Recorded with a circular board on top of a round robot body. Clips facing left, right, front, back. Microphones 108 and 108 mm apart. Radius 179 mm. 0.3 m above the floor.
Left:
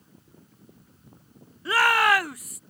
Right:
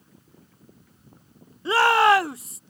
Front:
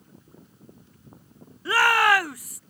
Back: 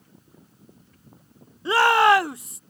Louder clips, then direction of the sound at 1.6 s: Right 4 dB, back 3 dB; 130° right.